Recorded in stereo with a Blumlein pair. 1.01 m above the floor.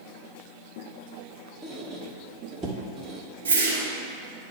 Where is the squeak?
15° right, 1.1 m.